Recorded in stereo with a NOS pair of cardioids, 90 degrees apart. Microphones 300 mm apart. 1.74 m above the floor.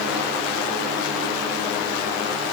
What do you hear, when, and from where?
Only background noise.